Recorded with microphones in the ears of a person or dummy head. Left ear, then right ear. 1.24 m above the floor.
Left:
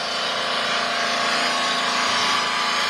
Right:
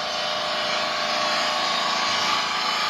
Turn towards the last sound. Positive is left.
turn(degrees=15)  # may be behind; listen again after turning